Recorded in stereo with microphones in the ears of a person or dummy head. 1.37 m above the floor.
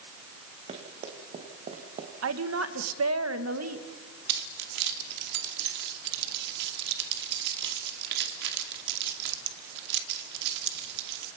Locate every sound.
0.7 s running footsteps: 35° right (ahead or behind), 4.5 m
2.2 s a woman speaking: 75° right (ahead or behind), 1.8 m
4.3 s keys jangling: 65° right (ahead or behind), 2.5 m